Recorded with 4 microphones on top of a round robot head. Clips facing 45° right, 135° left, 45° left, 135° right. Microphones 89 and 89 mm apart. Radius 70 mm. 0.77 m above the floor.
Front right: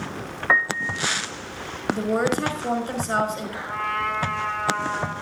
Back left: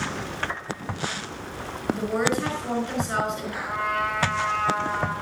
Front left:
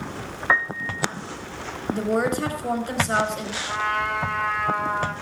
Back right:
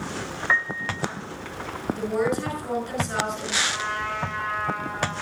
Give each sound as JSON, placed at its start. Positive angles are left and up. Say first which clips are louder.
{"t": 0.5, "sound": "a piano", "louder": "front right 9 dB, front left 3 dB", "azimuth_deg": -15, "distance_m": 0.7}
{"t": 1.9, "sound": "a woman speaking", "louder": "front right 2 dB, front left 2 dB", "azimuth_deg": 5, "distance_m": 5.0}
{"t": 3.7, "sound": "a trumpet", "louder": "even, front left 4 dB", "azimuth_deg": 65, "distance_m": 4.0}